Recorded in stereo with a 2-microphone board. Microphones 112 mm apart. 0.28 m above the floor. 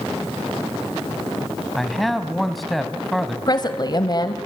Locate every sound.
1.8 s a man speaking: centre (ahead or behind), 2 m
3.5 s a woman speaking: 40° left (ahead or behind), 1.6 m